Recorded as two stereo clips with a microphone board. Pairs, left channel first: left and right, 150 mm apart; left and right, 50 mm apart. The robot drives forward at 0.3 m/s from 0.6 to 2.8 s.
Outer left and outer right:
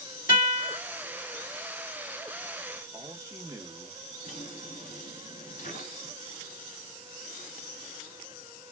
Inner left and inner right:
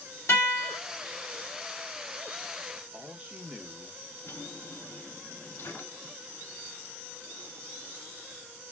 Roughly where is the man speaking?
Right.